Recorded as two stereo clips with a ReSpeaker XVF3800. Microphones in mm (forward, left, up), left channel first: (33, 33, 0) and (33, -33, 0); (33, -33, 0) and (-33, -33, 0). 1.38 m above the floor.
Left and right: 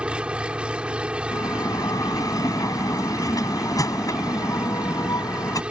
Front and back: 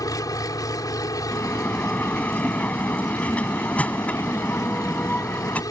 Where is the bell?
70° left.